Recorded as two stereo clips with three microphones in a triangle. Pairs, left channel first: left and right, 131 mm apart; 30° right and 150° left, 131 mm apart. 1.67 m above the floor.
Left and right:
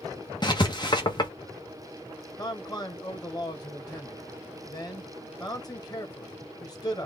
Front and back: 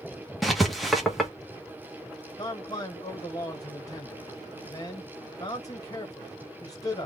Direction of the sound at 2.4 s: 30° left.